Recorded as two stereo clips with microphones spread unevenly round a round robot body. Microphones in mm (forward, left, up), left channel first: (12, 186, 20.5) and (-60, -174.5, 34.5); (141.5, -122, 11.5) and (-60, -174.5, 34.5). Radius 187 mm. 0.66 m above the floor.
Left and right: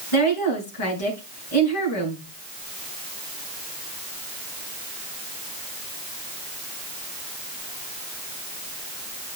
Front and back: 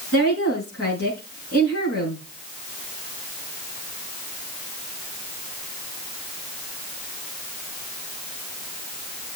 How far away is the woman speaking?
About 7 m.